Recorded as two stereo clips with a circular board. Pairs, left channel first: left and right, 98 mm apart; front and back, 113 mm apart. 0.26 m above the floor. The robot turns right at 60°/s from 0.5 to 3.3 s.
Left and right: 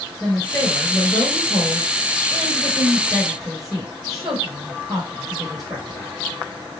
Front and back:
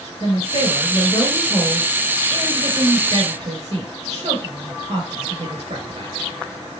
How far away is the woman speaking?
About 3 m.